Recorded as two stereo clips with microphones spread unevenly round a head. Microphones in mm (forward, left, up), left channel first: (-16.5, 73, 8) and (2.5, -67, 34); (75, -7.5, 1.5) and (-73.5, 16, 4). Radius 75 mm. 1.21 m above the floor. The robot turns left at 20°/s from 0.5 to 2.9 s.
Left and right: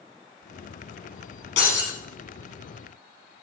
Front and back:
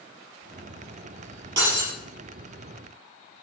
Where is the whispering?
No whispering in this recording.